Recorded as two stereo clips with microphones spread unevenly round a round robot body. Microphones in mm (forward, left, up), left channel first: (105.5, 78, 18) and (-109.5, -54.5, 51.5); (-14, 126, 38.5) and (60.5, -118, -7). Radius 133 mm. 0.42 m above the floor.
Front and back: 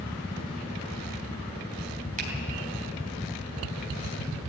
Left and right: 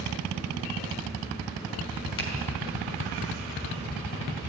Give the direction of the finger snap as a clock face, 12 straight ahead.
7 o'clock.